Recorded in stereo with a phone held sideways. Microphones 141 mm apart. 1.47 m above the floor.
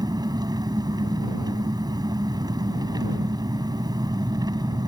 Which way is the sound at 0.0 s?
30° right (ahead or behind).